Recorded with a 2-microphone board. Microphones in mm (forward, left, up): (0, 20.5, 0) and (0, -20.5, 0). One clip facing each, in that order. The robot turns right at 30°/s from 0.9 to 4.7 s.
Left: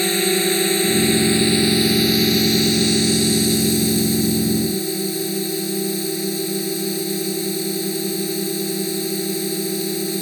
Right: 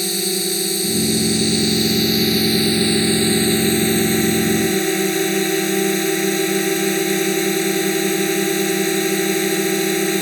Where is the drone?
135° left; by 10.2 s 110° right.